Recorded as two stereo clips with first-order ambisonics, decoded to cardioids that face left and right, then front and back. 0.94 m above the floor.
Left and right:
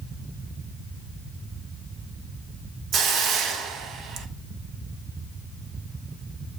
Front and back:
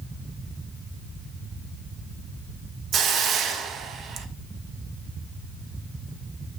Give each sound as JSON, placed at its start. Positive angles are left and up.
{"t": 2.9, "sound": "a hiss", "azimuth_deg": -135, "distance_m": 0.8}